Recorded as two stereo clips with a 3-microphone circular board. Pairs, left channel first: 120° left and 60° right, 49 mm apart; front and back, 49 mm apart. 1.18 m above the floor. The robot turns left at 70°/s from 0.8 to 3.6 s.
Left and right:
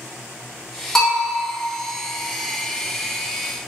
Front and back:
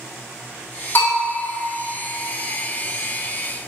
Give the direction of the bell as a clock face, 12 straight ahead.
11 o'clock.